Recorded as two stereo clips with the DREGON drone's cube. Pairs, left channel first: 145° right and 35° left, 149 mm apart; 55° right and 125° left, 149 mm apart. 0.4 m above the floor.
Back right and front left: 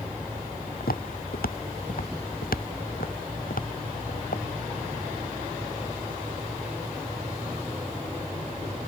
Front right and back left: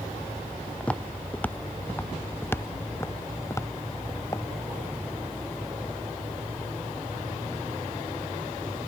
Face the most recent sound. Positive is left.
turn(degrees=-120)